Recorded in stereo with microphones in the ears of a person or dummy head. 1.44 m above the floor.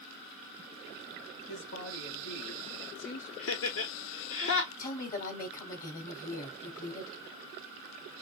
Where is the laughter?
65° left (ahead or behind), 0.9 m.